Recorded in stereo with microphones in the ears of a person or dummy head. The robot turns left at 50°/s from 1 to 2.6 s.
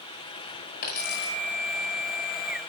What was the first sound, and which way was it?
A dropped coin, 40° left (ahead or behind).